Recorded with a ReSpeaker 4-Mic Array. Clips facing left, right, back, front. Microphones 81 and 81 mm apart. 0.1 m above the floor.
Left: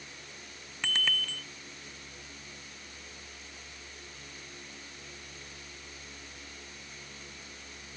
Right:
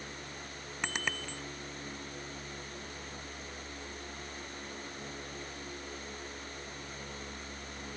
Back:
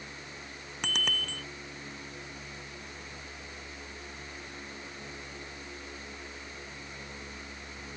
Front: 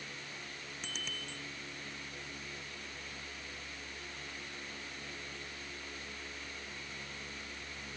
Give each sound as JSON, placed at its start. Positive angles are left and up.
{"t": 0.8, "sound": "a bicycle bell", "azimuth_deg": -160}